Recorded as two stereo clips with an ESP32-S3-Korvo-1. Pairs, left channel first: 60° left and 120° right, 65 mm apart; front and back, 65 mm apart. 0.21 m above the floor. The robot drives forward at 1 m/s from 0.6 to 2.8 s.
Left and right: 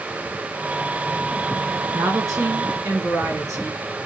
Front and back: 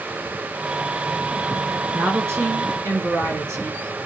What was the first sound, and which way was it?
A woman speaking, 130° right.